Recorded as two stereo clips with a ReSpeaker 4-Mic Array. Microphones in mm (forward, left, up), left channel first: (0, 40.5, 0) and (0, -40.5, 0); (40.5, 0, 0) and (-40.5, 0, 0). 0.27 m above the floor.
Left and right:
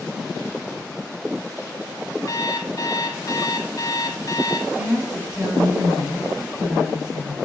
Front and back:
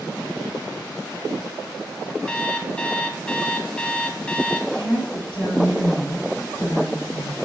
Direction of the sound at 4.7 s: 10° right.